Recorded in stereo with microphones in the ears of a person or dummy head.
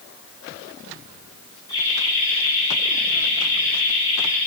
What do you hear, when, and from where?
1.7 s laughter: 20° left (ahead or behind), 7 m